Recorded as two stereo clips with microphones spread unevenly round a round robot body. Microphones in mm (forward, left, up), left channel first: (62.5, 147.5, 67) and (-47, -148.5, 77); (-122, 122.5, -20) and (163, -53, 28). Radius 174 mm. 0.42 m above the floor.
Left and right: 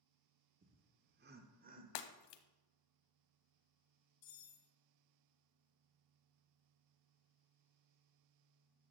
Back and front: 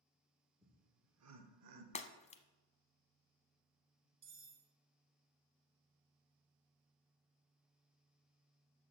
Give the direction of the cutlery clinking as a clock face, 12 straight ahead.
11 o'clock.